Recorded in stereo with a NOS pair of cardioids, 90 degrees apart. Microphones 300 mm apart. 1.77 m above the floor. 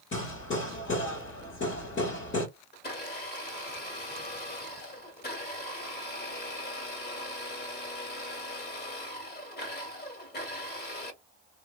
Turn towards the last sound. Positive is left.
turn(degrees=30)